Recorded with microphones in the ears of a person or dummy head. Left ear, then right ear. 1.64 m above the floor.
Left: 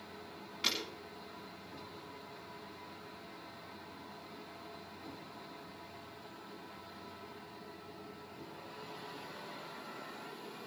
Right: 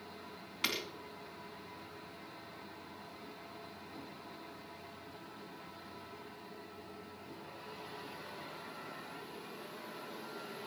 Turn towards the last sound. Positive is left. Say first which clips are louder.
# left 1 dB
turn(degrees=-25)  # may be behind; listen again after turning